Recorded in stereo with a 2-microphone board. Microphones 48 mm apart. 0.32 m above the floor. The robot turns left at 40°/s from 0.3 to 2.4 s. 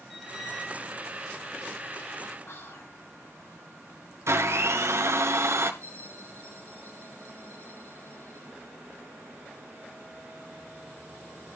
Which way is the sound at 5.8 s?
60° left (ahead or behind).